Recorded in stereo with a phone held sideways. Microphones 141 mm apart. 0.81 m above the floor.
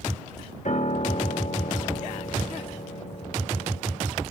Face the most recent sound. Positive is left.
turn(degrees=60)  # may be behind; listen again after turning